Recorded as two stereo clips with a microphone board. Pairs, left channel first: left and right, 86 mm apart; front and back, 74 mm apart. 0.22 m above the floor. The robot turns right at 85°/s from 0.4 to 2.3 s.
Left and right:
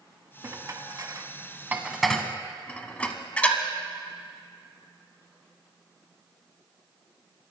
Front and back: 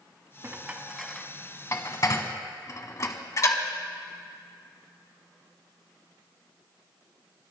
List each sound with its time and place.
0.4 s dishes clattering: 135° right, 1.1 m; by 3.6 s 20° left, 1.1 m